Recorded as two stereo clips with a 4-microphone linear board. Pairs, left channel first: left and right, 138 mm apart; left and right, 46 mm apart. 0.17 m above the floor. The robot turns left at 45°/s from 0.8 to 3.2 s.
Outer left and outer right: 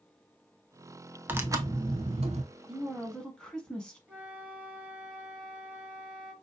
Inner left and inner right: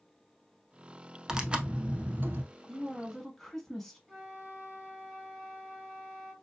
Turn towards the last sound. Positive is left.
turn(degrees=-10)  # may be behind; listen again after turning